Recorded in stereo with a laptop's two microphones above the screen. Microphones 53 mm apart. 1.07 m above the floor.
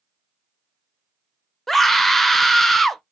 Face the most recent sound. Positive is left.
turn(degrees=5)  # may be behind; listen again after turning